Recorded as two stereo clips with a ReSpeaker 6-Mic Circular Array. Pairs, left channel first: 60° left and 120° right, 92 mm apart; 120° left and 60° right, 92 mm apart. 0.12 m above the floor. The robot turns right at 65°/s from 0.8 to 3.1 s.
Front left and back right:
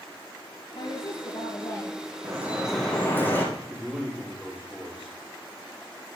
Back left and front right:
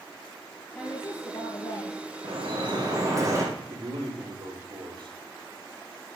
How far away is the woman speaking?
About 3 m.